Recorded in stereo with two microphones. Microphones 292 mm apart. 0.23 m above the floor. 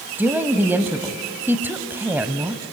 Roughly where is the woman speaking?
Centre.